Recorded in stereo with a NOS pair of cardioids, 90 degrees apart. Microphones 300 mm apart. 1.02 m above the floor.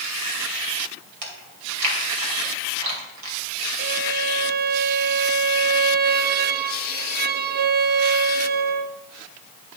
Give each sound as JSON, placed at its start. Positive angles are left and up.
{"t": 1.2, "sound": "chewing", "azimuth_deg": -70, "distance_m": 2.5}
{"t": 3.8, "sound": "a violin", "azimuth_deg": -35, "distance_m": 0.5}